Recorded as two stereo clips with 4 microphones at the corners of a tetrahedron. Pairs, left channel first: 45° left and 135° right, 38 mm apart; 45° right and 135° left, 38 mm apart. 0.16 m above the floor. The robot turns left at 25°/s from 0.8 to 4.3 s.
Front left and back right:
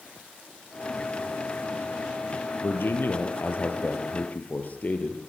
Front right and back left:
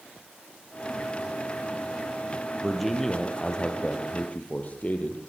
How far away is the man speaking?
About 3.5 m.